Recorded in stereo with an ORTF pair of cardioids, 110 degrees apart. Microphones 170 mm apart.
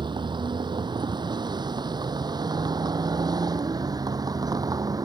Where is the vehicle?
25° right; by 5.1 s 20° right.